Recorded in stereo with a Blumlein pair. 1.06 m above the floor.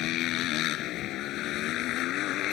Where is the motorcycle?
35° left.